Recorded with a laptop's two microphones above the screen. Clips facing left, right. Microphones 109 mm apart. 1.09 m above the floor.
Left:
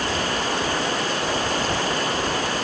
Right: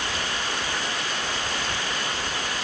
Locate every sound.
0.0 s running water: 40° left (ahead or behind)